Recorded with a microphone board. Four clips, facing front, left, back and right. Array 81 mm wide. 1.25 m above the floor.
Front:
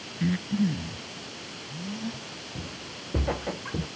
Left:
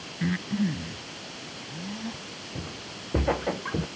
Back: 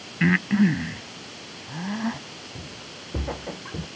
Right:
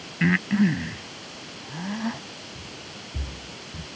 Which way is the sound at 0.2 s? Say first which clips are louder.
Right 6 dB, back 6 dB; 150° right.